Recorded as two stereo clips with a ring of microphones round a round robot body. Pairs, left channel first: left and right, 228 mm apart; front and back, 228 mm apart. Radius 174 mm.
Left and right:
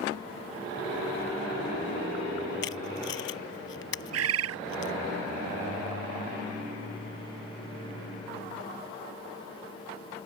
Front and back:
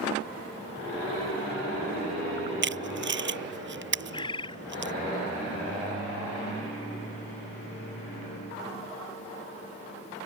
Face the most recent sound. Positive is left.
turn(degrees=-75)